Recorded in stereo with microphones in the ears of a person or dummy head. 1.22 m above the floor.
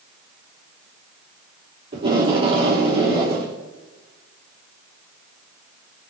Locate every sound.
1.9 s tape being pulled: 30° right (ahead or behind), 3 m